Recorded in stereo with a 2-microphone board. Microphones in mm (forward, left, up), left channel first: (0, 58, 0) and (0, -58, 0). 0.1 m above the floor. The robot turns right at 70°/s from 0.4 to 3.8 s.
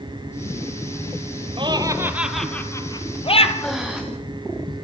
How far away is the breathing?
About 4.5 m.